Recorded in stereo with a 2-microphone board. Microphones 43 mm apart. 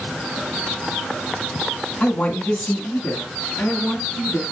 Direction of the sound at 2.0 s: 30° left (ahead or behind).